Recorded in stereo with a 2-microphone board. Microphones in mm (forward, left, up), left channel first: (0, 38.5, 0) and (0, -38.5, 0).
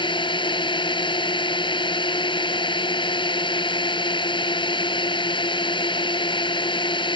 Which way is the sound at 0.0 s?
80° left.